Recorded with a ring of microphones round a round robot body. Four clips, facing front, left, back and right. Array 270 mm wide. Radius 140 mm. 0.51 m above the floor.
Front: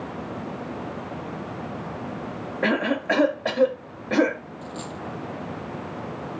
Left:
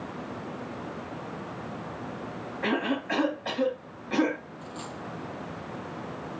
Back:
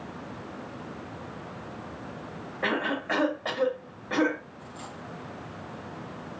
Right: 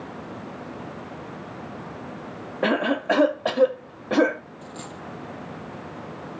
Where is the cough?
60° right, 2.5 m.